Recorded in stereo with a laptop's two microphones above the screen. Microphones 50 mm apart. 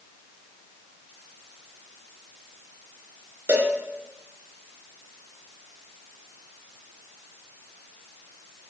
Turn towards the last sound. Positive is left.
turn(degrees=-50)  # may be behind; listen again after turning